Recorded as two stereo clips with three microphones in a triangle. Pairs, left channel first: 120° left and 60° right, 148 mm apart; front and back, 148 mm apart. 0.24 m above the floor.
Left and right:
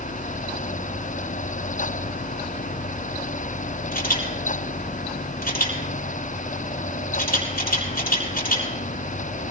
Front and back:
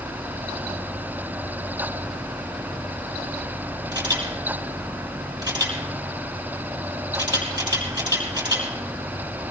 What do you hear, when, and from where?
3.9 s a camera shutter: 120° left, 6 m